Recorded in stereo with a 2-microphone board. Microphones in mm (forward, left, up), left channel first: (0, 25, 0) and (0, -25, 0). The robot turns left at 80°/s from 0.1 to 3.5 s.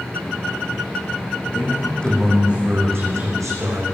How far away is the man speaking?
About 8 m.